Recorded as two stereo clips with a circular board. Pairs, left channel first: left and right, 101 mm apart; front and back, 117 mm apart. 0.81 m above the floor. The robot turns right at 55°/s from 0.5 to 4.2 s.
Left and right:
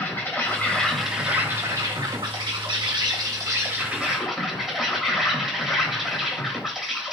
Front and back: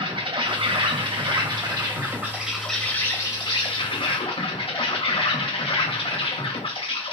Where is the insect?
155° left, 0.8 m; by 7.1 s 5° right, 0.8 m.